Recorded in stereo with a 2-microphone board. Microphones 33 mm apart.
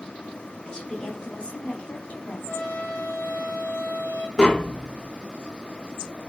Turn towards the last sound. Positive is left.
turn(degrees=25)  # may be behind; listen again after turning